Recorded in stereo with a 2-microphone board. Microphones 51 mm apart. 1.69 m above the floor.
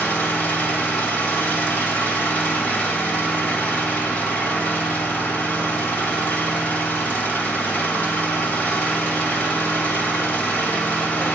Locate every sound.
0.0 s an engine running: 35° left (ahead or behind), 2.0 m